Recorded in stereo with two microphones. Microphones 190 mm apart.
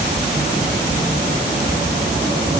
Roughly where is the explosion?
No explosion in this recording.